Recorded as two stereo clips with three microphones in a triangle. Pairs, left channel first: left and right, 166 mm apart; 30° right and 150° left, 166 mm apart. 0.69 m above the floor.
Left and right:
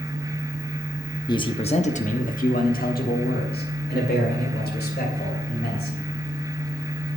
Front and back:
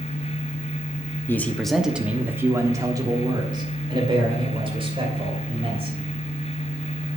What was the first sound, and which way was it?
A man speaking, 40° left.